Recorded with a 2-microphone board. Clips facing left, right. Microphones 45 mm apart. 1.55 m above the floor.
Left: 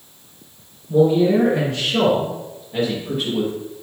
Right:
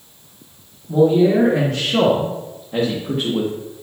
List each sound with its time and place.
0.9 s a man speaking: 70° right (ahead or behind), 2 m; by 3.5 s 45° right (ahead or behind), 1.4 m